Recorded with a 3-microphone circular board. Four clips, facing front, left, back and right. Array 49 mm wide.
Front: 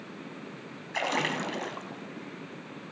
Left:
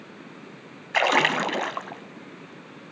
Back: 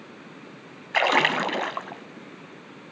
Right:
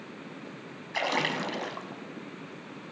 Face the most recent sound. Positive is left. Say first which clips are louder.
# left 8 dB, back 9 dB
turn(degrees=135)